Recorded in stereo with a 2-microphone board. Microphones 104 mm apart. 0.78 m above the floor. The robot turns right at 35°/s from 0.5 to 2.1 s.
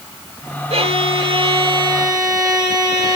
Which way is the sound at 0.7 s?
90° right.